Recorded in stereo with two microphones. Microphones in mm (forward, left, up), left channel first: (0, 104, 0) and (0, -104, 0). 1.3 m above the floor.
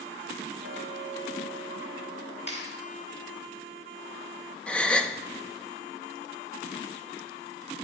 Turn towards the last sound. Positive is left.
turn(degrees=5)  # may be behind; listen again after turning